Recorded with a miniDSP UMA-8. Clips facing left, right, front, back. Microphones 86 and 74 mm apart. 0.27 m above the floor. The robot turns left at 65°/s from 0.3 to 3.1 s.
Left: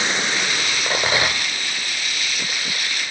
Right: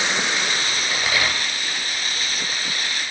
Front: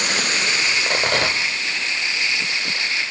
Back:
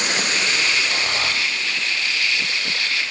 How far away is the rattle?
About 0.8 m.